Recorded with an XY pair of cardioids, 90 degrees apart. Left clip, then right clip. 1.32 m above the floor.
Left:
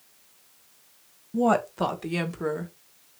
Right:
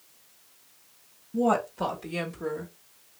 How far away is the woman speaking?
About 1.4 m.